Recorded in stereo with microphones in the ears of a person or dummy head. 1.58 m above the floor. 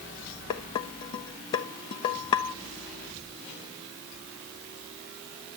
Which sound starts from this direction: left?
Dishes clattering, at 0.5 s.